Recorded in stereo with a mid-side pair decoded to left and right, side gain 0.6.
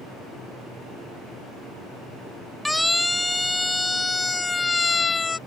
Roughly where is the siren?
Ahead.